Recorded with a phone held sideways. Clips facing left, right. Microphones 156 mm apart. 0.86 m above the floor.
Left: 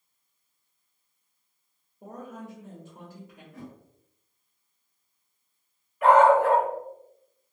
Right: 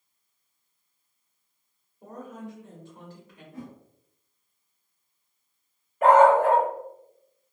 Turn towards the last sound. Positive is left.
turn(degrees=-45)  # may be behind; listen again after turning